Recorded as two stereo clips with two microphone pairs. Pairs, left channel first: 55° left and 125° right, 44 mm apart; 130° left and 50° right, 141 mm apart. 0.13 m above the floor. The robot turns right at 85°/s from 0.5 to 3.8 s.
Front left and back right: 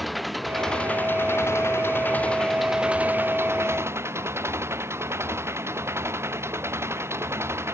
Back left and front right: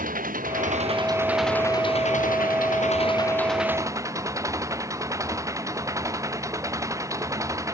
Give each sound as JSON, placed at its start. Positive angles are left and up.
{"t": 0.0, "sound": "an engine running", "azimuth_deg": -35}